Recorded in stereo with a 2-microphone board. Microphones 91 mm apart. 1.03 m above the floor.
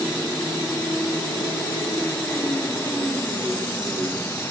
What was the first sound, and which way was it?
Only background noise.